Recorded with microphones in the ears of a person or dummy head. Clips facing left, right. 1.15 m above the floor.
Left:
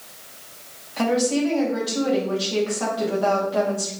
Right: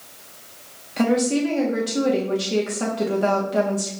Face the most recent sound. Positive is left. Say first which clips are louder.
# right 1 dB
turn(degrees=-30)  # may be behind; listen again after turning